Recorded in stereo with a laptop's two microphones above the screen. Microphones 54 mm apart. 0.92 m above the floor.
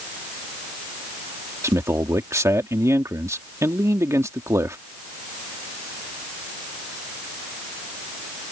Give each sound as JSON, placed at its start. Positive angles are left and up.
{"t": 1.6, "sound": "a man speaking", "side_deg": -65}